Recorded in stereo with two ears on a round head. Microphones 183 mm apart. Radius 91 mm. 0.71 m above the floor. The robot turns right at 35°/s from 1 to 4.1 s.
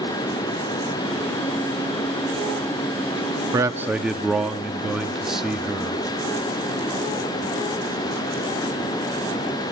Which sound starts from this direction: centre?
A man speaking, at 3.5 s.